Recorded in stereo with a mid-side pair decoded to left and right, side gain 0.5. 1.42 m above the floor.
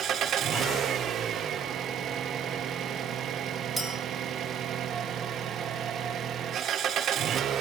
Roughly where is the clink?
Ahead.